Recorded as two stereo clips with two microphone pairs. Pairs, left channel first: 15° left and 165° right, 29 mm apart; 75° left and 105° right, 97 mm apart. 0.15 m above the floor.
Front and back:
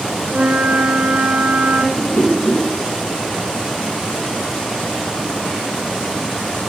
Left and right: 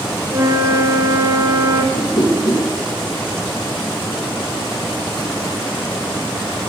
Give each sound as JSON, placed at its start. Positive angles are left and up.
{"t": 0.3, "sound": "a flute", "azimuth_deg": -150, "distance_m": 1.6}
{"t": 1.9, "sound": "a whoosh", "azimuth_deg": 45, "distance_m": 2.5}